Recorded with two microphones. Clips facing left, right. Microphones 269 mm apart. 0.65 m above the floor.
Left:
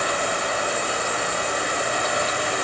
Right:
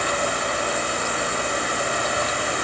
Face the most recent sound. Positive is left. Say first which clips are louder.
# right 1 dB
turn(degrees=-60)  # may be behind; listen again after turning